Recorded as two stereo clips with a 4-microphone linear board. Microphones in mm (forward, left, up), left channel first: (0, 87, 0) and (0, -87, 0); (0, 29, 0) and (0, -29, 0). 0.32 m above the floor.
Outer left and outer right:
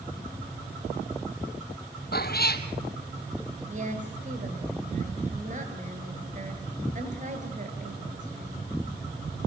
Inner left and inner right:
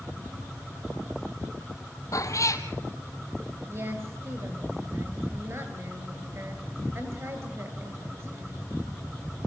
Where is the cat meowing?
65° left (ahead or behind), 1.9 m.